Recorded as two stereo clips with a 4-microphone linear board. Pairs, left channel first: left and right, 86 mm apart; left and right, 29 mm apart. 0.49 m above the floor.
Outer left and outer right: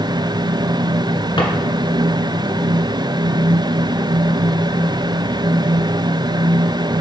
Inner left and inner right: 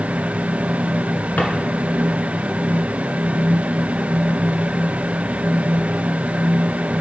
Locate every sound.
1.4 s a drawer: 75° left (ahead or behind), 1.7 m